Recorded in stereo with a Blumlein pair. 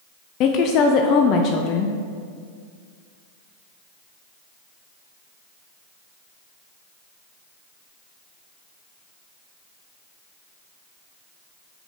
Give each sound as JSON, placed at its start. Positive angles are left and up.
{"t": 0.4, "sound": "a woman speaking", "azimuth_deg": 35, "distance_m": 0.7}